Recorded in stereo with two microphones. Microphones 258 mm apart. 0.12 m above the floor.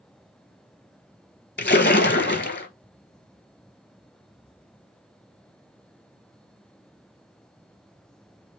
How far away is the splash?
About 0.6 m.